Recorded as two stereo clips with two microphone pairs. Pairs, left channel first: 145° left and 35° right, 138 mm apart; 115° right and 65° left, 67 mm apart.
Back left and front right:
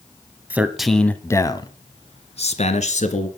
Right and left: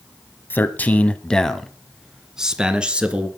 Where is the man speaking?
100° right, 1.1 m; by 3.3 s 135° left, 2 m.